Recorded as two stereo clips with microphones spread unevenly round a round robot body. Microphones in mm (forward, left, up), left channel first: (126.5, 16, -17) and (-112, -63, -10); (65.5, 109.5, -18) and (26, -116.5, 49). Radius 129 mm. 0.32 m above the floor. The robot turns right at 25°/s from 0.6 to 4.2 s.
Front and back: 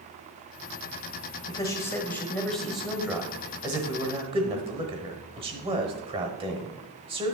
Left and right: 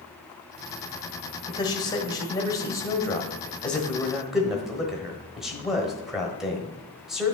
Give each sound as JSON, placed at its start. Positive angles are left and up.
{"t": 1.5, "sound": "a man speaking", "azimuth_deg": 80, "distance_m": 1.0}